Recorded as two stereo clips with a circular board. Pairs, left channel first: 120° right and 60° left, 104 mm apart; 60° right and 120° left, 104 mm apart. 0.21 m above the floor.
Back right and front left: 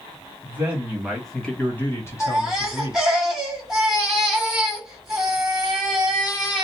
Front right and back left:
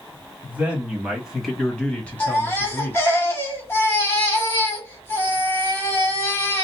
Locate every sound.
0.4 s a man speaking: 80° left, 1.1 m; by 3.0 s 120° right, 1.4 m
2.2 s a baby crying: 25° right, 1.1 m